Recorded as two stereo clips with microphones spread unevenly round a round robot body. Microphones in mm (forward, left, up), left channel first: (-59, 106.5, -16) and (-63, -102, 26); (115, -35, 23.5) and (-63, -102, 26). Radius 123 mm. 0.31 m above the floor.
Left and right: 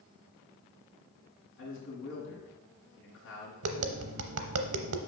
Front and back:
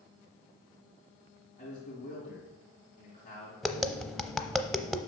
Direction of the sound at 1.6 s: 85° left.